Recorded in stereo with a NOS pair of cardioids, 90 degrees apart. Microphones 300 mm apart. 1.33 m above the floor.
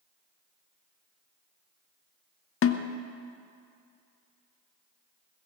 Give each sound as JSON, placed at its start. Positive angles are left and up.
{"t": 2.6, "sound": "a snare drum", "azimuth_deg": 45, "distance_m": 0.9}